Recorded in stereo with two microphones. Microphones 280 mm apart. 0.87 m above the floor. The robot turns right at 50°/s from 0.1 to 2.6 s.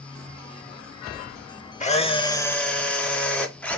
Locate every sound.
1.8 s a camera shutter: 130° left, 0.7 m; by 3.8 s 170° left, 0.7 m